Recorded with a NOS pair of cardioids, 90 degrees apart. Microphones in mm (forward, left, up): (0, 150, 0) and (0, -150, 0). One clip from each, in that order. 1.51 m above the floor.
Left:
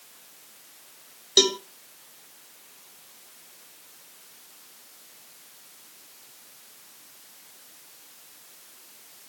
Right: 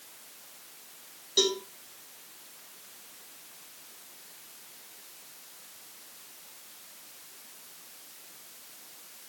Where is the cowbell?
65° left, 1.7 m.